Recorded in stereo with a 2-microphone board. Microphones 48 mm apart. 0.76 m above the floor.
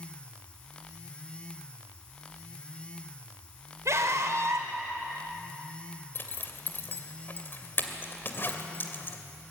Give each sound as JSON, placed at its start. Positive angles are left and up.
{"t": 3.9, "sound": "a scream", "side_deg": -75, "distance_m": 3.5}
{"t": 6.2, "sound": "a zipper", "side_deg": 45, "distance_m": 2.0}